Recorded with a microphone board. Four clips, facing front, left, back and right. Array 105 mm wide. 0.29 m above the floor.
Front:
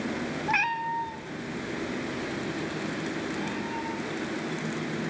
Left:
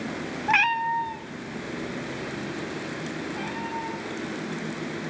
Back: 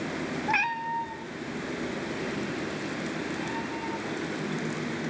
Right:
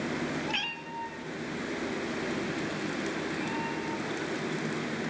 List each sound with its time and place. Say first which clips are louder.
0.5 s a cat meowing: left 14 dB, front 1 dB; 90° left, 0.6 m; by 4.3 s 70° left, 6 m